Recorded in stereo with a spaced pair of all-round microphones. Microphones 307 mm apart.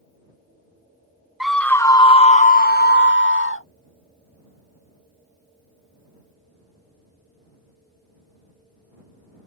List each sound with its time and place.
1.4 s a scream: centre (ahead or behind); by 3.6 s 45° left (ahead or behind)